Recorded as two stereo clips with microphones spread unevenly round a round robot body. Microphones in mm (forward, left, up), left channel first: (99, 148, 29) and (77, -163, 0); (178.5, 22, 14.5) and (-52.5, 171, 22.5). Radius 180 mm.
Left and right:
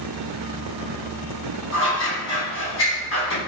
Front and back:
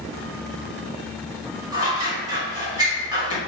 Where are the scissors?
80° left, 1.4 m.